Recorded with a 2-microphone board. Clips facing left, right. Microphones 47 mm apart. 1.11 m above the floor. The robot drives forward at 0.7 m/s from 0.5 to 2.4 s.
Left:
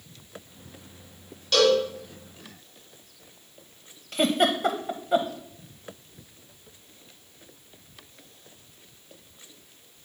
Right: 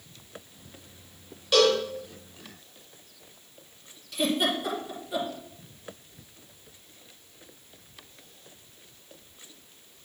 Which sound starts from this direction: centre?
A cowbell, at 1.5 s.